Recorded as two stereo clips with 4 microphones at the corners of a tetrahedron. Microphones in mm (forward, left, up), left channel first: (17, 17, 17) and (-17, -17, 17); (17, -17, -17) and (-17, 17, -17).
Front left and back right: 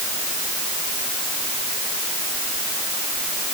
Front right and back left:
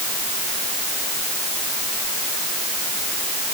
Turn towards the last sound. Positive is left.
No sound to turn to.